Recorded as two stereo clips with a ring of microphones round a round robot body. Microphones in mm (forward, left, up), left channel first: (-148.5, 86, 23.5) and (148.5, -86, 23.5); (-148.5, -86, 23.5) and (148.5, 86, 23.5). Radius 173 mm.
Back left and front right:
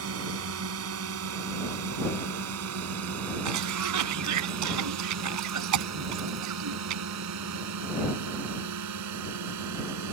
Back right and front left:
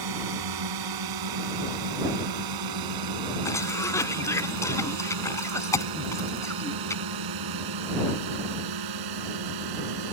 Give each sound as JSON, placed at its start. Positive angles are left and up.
{"t": 0.0, "sound": "a drone", "azimuth_deg": 15}
{"t": 3.5, "sound": "a cough", "azimuth_deg": -70}